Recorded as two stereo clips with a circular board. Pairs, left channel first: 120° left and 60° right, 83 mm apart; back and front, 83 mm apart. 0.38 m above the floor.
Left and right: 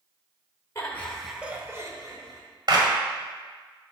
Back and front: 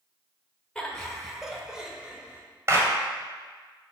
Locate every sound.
0.8 s laughter: 100° left, 1.2 m; by 2.4 s 75° right, 1.8 m
2.7 s a clap: 50° right, 1.8 m